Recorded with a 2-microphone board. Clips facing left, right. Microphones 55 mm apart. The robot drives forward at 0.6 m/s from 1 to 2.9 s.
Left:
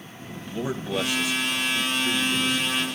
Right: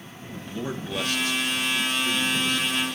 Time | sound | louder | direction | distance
0.5 | a man speaking | left 3 dB | 10° left (ahead or behind) | 1.5 m